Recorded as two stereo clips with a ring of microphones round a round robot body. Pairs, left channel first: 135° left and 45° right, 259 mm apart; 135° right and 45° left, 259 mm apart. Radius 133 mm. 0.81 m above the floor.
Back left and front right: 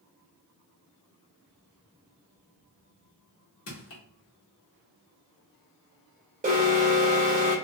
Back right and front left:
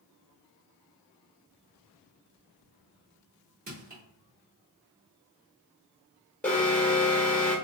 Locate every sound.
3.7 s crushing: 100° left, 1.4 m
6.4 s an alarm: 55° right, 1.2 m